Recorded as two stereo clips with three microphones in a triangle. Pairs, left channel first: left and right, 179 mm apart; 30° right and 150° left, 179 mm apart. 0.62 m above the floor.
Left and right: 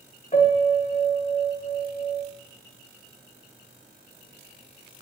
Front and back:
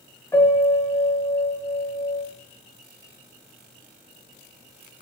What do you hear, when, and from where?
0.3 s a piano: 45° left, 0.8 m